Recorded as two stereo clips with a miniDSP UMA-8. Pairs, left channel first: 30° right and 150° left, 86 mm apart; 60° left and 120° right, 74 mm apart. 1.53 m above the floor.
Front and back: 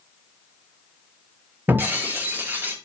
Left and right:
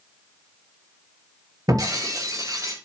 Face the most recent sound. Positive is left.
turn(degrees=-145)